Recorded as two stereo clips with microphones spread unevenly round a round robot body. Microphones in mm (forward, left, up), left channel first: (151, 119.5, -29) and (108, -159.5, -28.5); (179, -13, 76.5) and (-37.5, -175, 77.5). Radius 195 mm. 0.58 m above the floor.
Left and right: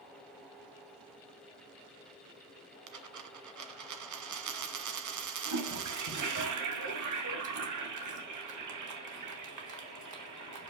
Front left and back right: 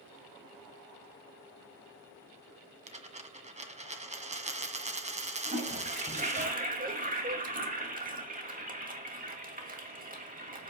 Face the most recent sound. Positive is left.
turn(degrees=-85)